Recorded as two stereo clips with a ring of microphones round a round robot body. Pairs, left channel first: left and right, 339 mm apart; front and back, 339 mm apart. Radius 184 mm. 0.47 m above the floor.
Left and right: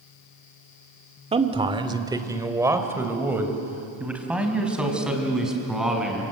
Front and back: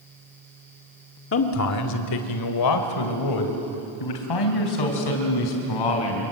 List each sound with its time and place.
1.3 s a man speaking: 25° right, 1.6 m; by 6.2 s straight ahead, 5.5 m